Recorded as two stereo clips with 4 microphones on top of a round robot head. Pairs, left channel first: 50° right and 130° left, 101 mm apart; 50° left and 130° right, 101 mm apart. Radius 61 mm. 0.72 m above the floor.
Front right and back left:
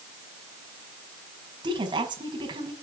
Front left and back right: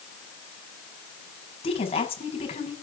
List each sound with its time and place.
1.6 s a woman speaking: 85° left, 6 m